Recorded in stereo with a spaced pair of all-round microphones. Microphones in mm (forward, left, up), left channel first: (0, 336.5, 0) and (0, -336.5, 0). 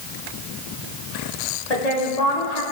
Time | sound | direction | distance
1.7 | a woman speaking | 70° left (ahead or behind) | 1.9 m